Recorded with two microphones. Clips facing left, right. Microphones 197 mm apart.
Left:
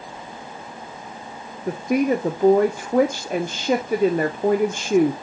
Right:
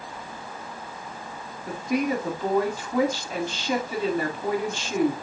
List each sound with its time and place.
1.7 s a woman speaking: 55° left (ahead or behind), 0.6 m